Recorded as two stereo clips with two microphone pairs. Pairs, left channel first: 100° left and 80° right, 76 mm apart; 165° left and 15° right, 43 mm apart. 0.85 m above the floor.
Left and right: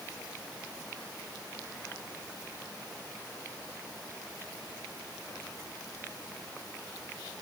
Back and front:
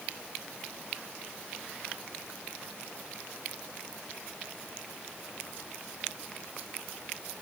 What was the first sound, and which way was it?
Only background noise.